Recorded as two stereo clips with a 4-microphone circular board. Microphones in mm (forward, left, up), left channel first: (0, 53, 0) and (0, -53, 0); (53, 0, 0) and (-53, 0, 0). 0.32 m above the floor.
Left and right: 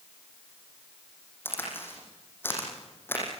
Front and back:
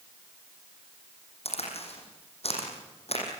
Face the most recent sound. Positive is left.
turn(degrees=20)